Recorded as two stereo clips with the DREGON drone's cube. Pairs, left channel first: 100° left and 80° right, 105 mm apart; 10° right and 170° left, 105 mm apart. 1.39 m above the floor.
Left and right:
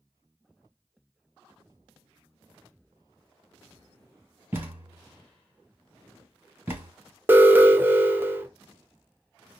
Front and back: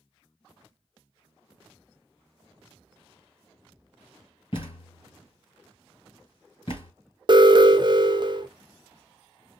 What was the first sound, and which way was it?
A thud, 15° right.